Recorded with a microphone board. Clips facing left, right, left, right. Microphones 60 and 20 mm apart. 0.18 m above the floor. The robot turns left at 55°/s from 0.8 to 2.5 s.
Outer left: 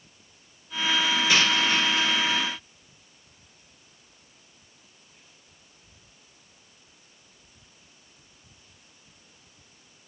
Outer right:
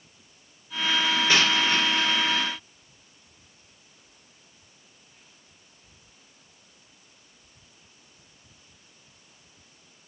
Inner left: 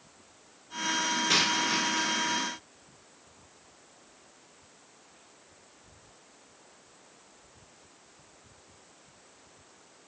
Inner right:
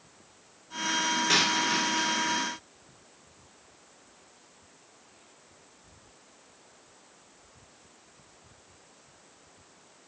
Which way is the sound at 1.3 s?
35° right (ahead or behind).